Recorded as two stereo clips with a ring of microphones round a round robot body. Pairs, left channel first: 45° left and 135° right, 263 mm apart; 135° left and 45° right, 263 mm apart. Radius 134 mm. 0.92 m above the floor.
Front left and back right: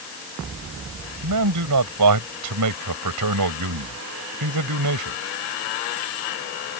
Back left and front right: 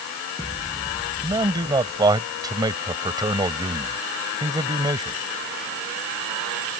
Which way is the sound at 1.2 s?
120° right.